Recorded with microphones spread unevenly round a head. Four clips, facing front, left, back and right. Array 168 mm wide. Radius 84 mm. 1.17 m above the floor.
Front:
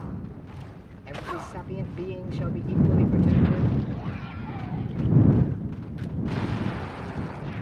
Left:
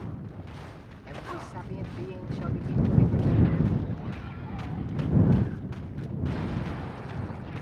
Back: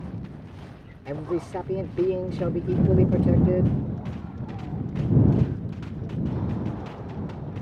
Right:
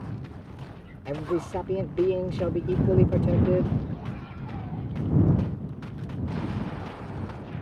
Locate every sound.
1.1 s a man speaking: 130° right